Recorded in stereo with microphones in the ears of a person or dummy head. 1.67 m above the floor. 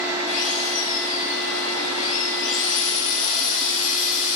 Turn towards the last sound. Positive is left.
turn(degrees=70)  # may be behind; listen again after turning